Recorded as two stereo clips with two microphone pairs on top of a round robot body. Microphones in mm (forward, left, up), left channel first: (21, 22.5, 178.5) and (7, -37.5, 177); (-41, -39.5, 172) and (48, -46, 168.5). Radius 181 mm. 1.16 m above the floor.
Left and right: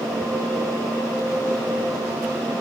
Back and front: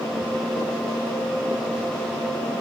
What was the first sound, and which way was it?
Only background noise.